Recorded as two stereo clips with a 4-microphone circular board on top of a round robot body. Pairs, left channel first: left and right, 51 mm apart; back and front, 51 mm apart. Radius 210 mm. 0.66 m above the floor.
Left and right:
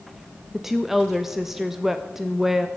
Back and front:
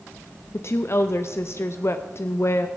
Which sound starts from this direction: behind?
A woman speaking, at 0.5 s.